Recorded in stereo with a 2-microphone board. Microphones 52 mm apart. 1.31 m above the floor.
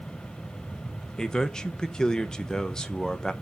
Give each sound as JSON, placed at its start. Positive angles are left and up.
{"t": 1.2, "sound": "a man speaking", "side_deg": 15, "distance_m": 1.1}